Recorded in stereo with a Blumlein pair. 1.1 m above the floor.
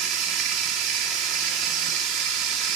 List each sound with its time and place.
0.0 s running water: 35° right, 1.9 m